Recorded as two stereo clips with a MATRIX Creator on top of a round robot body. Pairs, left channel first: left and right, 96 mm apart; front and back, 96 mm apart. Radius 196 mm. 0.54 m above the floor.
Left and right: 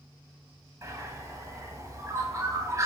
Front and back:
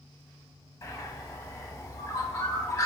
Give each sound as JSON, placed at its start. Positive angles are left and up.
{"t": 0.8, "sound": "a bird", "azimuth_deg": -50, "distance_m": 1.1}